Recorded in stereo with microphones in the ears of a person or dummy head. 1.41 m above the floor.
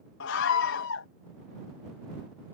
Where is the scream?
80° left.